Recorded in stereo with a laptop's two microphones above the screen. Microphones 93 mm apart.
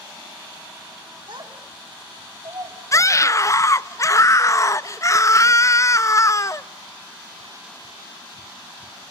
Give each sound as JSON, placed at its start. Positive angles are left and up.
{"t": 1.3, "sound": "a child speaking", "side_deg": -55, "distance_m": 1.8}
{"t": 2.9, "sound": "a scream", "side_deg": 35, "distance_m": 0.8}